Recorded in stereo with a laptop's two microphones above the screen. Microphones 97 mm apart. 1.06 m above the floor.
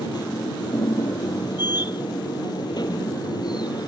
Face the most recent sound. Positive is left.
turn(degrees=50)  # may be behind; listen again after turning